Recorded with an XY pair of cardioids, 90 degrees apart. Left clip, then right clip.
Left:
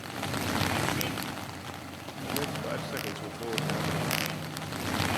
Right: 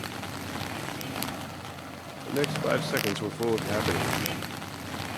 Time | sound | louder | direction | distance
2.3 | a man speaking | right 6 dB | 65° right | 1.1 m